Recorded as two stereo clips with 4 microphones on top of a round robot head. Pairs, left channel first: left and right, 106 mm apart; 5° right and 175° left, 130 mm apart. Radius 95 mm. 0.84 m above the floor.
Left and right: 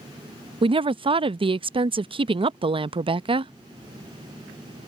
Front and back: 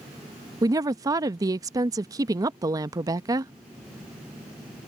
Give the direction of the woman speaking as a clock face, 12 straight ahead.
4 o'clock.